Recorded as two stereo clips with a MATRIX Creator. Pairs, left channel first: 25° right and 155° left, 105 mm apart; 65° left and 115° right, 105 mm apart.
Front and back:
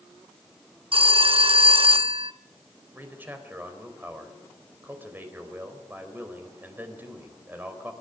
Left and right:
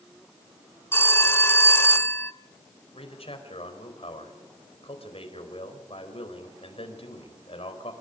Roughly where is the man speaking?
Left.